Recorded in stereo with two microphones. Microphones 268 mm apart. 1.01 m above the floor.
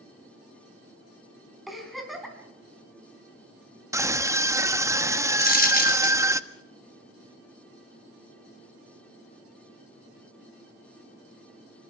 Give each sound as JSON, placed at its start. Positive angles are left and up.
{"t": 1.7, "sound": "a giggle", "side_deg": 0, "distance_m": 4.5}
{"t": 3.9, "sound": "a scream", "side_deg": -10, "distance_m": 1.2}
{"t": 5.4, "sound": "a dropped coin", "side_deg": 30, "distance_m": 3.0}